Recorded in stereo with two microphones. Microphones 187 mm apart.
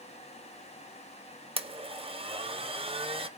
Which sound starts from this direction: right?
A blender, at 1.6 s.